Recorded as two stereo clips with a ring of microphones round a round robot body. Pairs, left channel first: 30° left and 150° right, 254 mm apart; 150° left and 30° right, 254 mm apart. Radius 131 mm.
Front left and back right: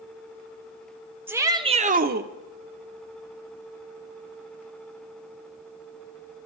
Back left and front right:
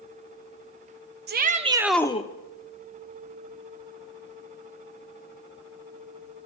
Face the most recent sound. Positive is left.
turn(degrees=-170)